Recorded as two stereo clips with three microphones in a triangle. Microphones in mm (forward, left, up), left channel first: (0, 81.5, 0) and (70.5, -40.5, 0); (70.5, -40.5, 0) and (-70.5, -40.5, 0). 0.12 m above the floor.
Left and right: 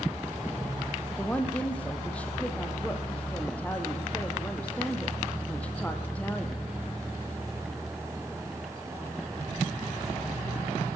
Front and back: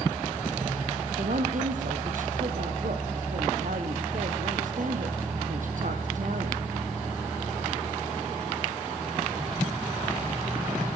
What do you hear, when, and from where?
1.2 s a woman speaking: 160° right, 3.5 m